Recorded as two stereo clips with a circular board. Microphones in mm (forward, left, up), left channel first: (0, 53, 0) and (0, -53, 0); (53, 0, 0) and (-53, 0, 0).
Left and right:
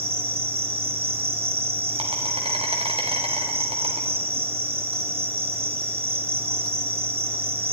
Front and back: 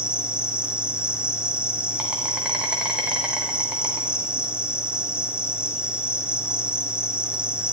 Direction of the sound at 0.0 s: 100° right.